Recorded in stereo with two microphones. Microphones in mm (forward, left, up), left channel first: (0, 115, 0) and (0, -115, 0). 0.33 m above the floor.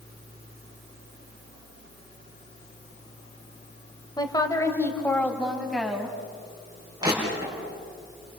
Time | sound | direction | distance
4.2 | a woman speaking | 20° left (ahead or behind) | 1.7 m
7.0 | crushing | 15° right (ahead or behind) | 6.5 m